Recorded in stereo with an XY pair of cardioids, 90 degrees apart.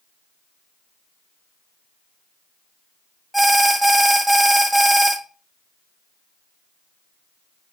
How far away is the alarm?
About 0.6 m.